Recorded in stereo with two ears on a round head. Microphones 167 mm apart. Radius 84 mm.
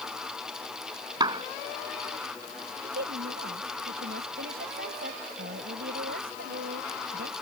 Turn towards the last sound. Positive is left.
turn(degrees=-55)  # may be behind; listen again after turning